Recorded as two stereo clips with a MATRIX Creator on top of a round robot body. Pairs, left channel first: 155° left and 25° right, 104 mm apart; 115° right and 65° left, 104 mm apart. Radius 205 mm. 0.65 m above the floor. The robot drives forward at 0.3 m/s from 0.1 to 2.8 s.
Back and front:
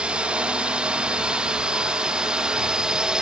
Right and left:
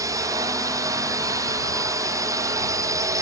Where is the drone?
50° left; by 3.2 s 55° left.